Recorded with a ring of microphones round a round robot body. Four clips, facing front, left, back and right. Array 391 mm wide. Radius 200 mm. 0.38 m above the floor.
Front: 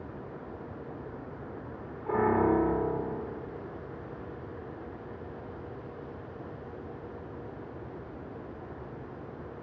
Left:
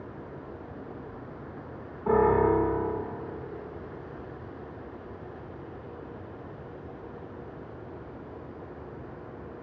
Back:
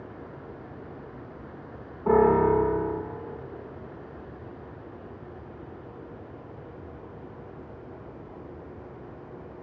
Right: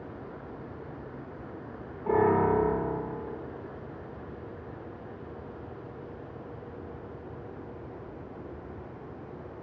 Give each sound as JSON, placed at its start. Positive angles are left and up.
{"t": 2.1, "sound": "a piano", "azimuth_deg": 165, "distance_m": 8.5}